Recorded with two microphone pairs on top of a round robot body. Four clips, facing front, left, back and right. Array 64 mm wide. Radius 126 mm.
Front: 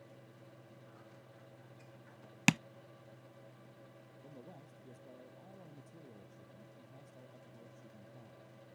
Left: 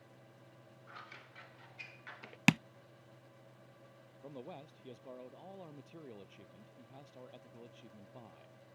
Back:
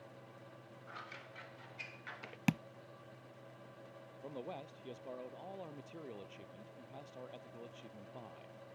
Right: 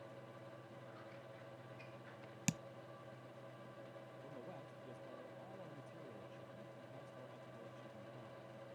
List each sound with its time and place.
0.9 s scissors: 145° left
2.5 s tapping: 55° left
4.2 s a man speaking: 155° left